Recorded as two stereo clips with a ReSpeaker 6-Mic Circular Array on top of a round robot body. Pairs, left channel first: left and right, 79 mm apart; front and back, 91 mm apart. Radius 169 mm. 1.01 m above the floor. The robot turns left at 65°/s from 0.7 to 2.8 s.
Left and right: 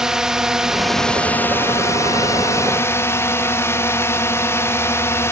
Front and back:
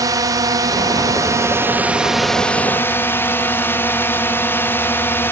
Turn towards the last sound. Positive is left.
turn(degrees=55)